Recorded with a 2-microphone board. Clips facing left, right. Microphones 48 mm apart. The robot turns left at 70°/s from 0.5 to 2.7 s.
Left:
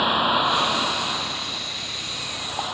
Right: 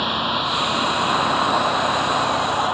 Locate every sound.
0.0 s a vehicle: 10° left; by 2.8 s 145° right